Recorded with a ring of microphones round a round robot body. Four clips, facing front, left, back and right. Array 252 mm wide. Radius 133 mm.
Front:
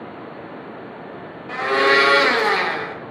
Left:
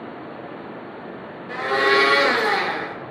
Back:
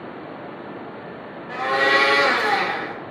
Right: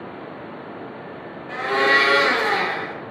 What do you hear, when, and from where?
1.5 s a blender: 5° left, 0.8 m